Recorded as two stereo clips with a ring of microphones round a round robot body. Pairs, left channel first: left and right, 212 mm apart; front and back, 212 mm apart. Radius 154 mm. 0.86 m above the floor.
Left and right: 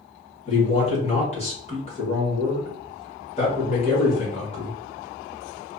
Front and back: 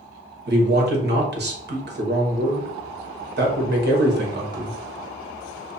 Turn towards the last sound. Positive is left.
turn(degrees=150)